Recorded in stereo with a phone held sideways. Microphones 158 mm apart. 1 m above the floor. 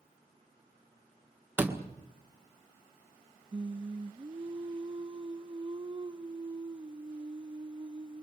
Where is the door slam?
10° right (ahead or behind), 1.8 m.